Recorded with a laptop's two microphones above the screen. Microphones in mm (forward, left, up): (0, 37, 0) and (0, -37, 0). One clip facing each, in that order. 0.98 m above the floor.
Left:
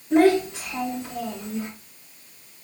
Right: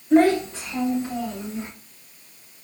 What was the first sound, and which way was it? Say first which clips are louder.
A child speaking: right 1 dB; 10° left (ahead or behind).